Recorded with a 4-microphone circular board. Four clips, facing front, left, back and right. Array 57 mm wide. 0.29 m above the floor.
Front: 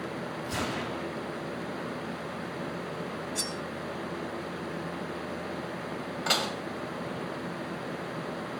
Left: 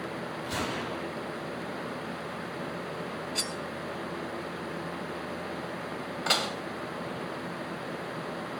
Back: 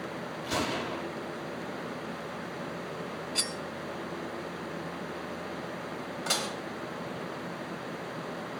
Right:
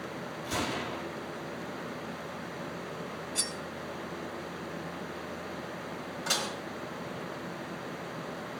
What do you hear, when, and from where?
0.4 s a gunshot: 165° left, 6.5 m
3.4 s cutlery clinking: 155° left, 0.6 m
6.3 s dishes clattering: 65° left, 1.0 m